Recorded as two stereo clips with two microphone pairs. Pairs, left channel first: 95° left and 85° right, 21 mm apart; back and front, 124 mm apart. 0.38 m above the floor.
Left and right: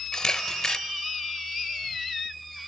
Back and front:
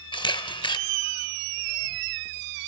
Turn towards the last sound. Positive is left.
turn(degrees=140)